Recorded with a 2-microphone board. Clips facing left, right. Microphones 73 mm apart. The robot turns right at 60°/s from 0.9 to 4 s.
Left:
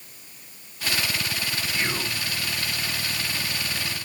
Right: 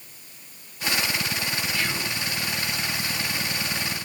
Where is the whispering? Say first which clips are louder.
Even; 20° left (ahead or behind), 1.3 m; by 2.2 s 5° right (ahead or behind), 1.3 m.